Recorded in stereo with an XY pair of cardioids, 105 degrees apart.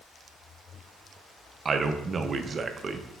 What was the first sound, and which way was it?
A man speaking, 40° right.